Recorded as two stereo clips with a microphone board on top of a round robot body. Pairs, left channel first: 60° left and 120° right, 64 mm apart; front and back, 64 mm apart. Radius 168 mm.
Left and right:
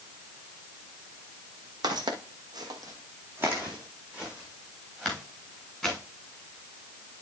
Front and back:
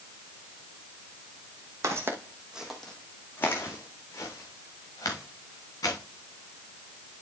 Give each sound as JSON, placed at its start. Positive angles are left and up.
{"t": 1.8, "sound": "footsteps", "azimuth_deg": -135, "distance_m": 1.6}